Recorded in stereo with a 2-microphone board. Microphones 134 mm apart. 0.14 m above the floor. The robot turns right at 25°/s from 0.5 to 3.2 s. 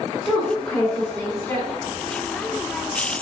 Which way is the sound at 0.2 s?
5° left (ahead or behind).